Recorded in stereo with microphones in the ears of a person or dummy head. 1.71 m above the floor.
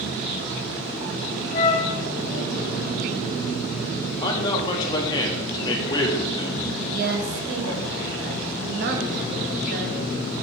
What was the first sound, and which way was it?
A flute, 30° left (ahead or behind).